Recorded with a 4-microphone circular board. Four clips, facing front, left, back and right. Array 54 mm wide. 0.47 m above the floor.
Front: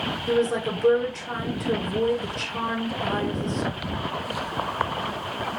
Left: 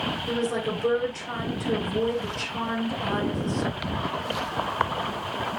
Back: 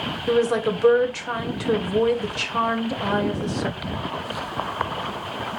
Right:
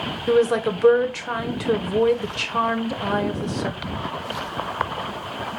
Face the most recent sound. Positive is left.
turn(degrees=-125)